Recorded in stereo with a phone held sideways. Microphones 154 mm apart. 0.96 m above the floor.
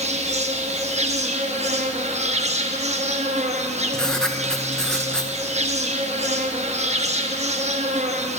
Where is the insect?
45° right (ahead or behind), 0.7 m.